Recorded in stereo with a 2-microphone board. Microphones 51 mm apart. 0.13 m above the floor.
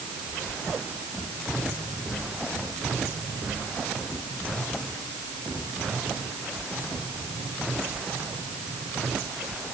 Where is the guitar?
I don't hear a guitar.